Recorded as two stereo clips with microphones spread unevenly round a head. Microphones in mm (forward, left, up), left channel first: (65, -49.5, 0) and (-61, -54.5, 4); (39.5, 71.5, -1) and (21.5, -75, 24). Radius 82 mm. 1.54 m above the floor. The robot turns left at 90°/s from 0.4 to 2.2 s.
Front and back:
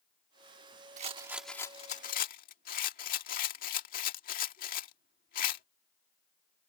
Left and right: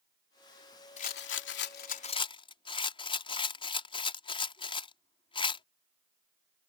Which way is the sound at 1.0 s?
135° left.